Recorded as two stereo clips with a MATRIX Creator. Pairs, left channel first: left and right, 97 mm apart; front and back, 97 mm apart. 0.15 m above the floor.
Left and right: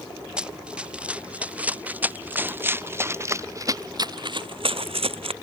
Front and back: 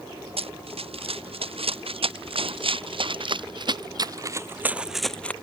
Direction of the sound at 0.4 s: 170° right.